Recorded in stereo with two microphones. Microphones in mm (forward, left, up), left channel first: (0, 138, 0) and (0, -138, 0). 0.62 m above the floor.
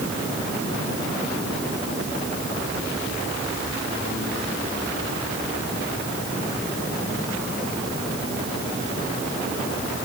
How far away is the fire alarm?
I don't hear a fire alarm.